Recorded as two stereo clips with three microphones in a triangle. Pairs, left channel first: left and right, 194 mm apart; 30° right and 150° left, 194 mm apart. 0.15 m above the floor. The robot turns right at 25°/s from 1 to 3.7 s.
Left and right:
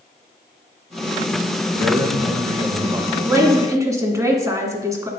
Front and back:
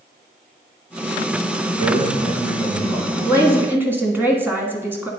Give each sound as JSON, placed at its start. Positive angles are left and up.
{"t": 1.8, "sound": "a man speaking", "azimuth_deg": -170, "distance_m": 1.9}
{"t": 3.2, "sound": "a woman speaking", "azimuth_deg": -155, "distance_m": 1.2}